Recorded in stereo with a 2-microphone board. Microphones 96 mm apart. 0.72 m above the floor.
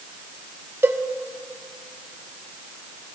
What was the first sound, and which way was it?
A cowbell, 25° right (ahead or behind).